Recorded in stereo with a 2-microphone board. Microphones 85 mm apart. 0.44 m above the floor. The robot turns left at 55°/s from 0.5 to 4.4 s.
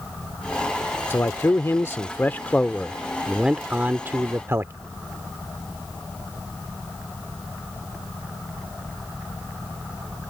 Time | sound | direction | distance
1.1 | a man speaking | 110° left | ?